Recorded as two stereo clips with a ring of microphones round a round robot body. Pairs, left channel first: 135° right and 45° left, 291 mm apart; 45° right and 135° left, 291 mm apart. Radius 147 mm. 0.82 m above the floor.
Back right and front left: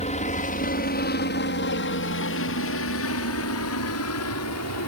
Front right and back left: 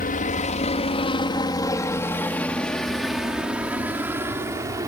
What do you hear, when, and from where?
0.0 s a helicopter: 85° right; by 4.9 s 150° right